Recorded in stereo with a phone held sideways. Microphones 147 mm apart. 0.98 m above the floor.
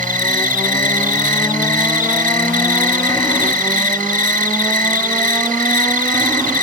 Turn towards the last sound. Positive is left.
turn(degrees=-70)  # may be behind; listen again after turning